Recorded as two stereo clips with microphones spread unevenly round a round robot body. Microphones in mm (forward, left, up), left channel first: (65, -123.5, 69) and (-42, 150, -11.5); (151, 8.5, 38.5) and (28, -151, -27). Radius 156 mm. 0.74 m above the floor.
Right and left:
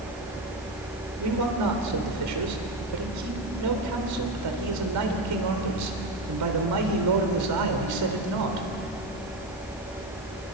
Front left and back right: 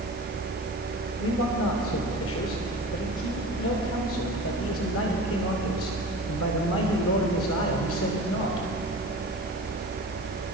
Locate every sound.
1.2 s a man speaking: 105° left, 3.5 m